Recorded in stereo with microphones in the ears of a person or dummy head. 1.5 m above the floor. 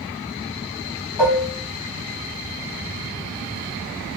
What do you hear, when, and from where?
1.2 s dishes clattering: centre (ahead or behind), 1.2 m